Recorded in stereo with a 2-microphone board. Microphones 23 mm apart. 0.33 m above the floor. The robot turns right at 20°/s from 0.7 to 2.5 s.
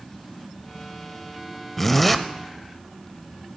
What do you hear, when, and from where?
1.8 s a zipper: 15° left (ahead or behind), 0.6 m; by 2.2 s 5° left (ahead or behind), 0.6 m